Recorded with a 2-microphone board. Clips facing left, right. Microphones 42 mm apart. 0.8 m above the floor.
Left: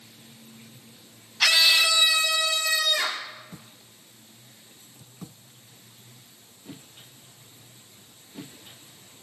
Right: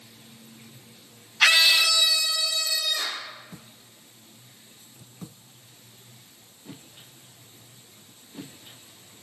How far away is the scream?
About 0.8 m.